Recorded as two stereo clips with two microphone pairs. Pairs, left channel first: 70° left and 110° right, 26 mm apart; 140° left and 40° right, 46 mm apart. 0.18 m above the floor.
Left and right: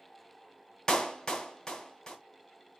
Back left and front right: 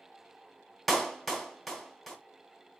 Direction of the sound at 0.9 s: 45° left.